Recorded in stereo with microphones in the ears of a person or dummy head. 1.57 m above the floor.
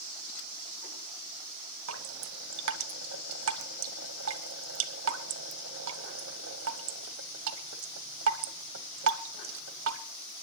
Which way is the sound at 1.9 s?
85° right.